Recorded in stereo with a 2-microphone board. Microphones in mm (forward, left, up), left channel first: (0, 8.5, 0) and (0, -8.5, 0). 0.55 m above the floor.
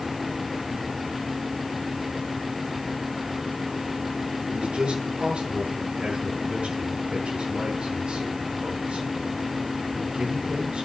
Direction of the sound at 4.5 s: 85° right.